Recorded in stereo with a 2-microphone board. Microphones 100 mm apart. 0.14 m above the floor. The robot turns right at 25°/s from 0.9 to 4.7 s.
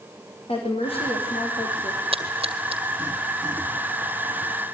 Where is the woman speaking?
70° left (ahead or behind), 6 m; by 2.0 s 45° left (ahead or behind), 6 m.